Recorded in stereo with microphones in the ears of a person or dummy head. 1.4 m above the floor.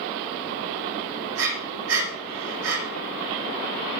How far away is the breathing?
About 5 m.